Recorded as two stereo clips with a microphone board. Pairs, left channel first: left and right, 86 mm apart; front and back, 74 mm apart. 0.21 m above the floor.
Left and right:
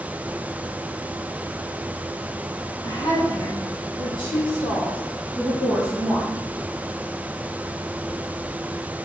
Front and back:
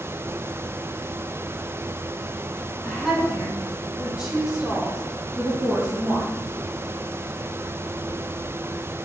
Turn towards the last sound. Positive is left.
turn(degrees=115)